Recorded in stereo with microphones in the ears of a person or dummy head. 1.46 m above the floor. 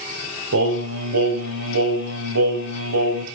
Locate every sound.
0.5 s singing: 75° right (ahead or behind), 3.5 m